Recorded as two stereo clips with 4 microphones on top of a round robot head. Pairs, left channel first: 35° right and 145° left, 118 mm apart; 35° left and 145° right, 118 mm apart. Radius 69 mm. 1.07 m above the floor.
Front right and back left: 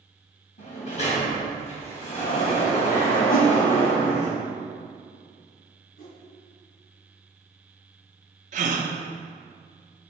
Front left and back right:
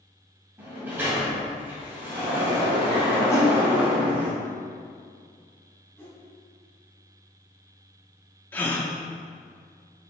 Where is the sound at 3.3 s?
30° right, 1.1 m.